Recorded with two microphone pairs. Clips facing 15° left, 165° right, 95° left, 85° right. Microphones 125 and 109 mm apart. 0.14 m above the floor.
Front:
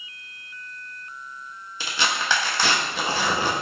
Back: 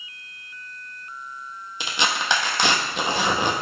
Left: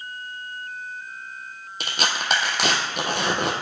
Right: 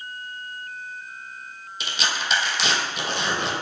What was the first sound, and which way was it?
Tearing paper, 130° left.